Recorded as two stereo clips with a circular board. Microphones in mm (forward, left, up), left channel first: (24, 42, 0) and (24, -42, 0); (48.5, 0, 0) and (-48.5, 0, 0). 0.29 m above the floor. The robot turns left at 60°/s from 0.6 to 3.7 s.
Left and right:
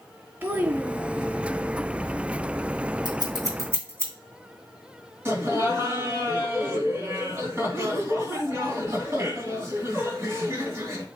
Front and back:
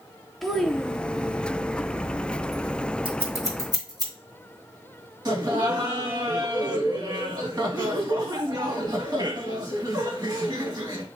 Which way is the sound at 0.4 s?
85° right.